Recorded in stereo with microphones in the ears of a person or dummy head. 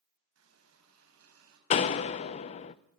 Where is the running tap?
85° right, 6.5 m.